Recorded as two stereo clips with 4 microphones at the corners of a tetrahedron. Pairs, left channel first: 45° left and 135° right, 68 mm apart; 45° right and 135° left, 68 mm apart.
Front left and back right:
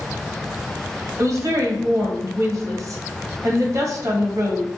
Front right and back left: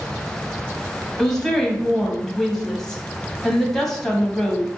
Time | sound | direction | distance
1.2 | a woman speaking | 130° right | 1.4 m